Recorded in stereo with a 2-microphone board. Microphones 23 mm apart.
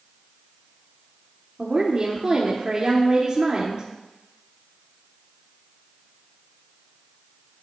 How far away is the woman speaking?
About 1.5 m.